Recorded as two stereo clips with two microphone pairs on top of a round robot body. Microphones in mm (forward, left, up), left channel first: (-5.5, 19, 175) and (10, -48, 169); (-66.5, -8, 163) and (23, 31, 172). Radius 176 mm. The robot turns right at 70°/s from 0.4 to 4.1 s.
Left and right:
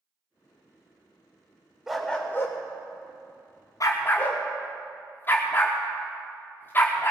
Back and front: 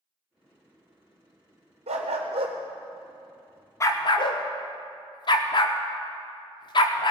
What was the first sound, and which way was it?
A dog barking, 10° left.